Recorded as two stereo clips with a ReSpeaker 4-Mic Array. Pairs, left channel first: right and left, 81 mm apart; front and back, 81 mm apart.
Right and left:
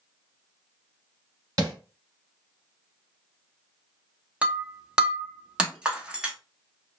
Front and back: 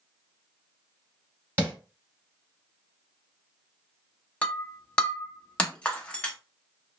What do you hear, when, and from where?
1.6 s tapping: 125° left, 1.9 m
4.4 s breaking glass: 45° left, 0.7 m